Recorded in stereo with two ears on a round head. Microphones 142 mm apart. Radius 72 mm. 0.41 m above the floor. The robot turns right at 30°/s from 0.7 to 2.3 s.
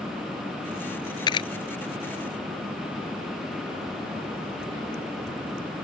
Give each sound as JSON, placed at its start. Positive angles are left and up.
{"t": 1.3, "sound": "a camera shutter", "side_deg": 25}